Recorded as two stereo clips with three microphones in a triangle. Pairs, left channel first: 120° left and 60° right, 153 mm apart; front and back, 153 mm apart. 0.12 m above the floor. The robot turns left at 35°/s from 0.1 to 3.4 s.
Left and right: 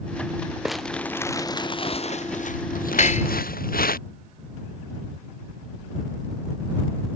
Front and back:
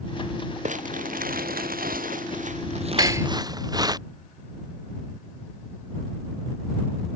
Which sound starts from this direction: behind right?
Crumpling, at 0.7 s.